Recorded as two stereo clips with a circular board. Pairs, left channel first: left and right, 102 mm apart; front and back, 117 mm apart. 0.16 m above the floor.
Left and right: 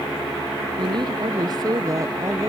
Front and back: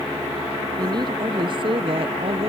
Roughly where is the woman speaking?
Behind right.